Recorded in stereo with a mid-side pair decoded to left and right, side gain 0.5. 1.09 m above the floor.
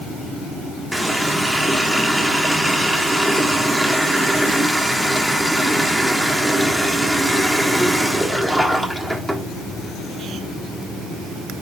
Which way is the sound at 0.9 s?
5° right.